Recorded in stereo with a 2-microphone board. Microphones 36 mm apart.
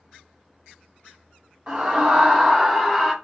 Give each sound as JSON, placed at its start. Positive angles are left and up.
{"t": 1.7, "sound": "a scream", "side_deg": -20, "distance_m": 1.1}